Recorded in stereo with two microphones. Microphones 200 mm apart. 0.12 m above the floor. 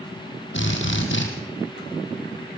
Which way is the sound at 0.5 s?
70° left (ahead or behind).